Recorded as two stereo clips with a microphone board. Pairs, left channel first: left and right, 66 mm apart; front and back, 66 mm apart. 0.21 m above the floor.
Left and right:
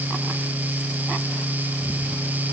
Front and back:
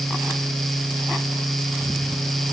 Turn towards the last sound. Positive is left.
No sound to turn to.